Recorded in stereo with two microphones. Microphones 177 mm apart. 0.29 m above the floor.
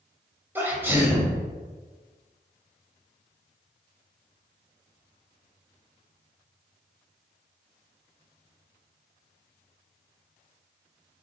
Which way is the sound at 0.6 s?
10° right (ahead or behind).